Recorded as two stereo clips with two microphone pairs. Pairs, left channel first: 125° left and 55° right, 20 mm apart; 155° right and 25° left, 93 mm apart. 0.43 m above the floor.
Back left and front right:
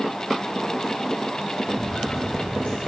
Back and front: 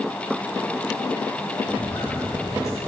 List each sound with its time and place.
1.7 s footsteps: 150° left, 4 m